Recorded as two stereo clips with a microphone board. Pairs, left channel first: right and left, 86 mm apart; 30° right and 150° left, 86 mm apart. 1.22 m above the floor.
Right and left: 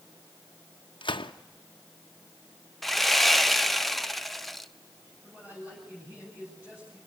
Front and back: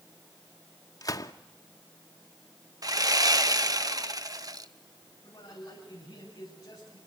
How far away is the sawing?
About 0.9 m.